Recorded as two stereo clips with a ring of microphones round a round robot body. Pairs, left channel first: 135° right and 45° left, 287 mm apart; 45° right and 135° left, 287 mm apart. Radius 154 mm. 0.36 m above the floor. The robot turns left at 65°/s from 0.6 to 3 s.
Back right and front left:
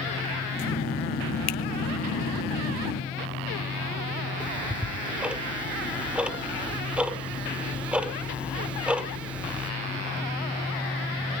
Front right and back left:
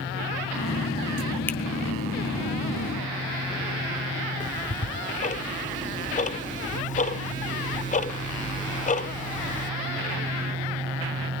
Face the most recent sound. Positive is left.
turn(degrees=-35)